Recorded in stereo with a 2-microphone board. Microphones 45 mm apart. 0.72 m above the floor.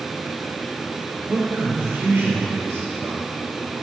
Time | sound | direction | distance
1.3 | a man speaking | 65° right (ahead or behind) | 3 m